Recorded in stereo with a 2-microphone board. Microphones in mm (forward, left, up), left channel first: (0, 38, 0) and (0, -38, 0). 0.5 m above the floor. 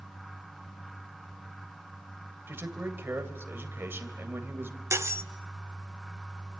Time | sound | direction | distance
2.5 | a man speaking | 30° right (ahead or behind) | 2.5 m
4.9 | cutlery clinking | 40° right (ahead or behind) | 0.9 m